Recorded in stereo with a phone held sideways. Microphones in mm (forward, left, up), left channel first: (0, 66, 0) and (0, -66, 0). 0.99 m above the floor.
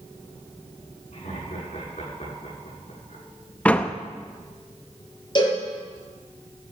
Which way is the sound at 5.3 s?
35° left (ahead or behind).